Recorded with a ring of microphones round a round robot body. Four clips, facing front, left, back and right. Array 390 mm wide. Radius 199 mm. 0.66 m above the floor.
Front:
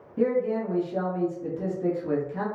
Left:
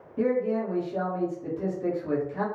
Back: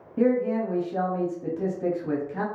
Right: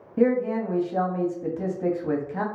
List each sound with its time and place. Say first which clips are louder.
0.2 s a man speaking: right 3 dB, back 2 dB; 110° right, 1.2 m